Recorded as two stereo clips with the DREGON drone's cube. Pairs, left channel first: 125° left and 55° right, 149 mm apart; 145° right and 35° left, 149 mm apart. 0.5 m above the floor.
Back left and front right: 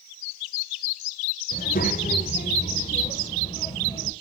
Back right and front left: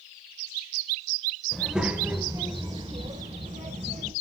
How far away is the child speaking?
About 1.1 m.